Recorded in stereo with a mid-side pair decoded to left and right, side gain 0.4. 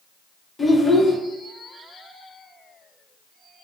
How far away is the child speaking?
About 0.9 m.